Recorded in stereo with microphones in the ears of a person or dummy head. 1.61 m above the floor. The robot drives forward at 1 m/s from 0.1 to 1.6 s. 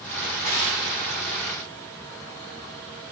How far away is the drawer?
About 4 m.